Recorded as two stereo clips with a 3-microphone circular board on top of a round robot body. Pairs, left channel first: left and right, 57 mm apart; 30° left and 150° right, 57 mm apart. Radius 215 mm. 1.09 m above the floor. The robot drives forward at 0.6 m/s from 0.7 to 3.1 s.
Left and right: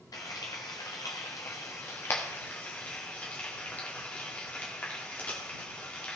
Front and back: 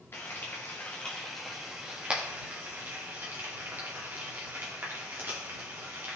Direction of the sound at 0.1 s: 85° left.